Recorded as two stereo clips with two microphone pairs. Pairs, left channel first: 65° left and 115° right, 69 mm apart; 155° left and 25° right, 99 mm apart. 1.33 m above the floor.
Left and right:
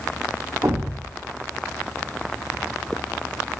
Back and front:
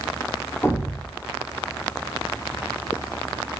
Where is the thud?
150° right, 1.2 m.